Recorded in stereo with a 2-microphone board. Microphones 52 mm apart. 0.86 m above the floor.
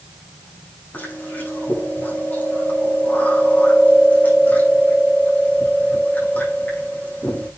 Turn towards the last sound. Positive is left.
turn(degrees=35)  # may be behind; listen again after turning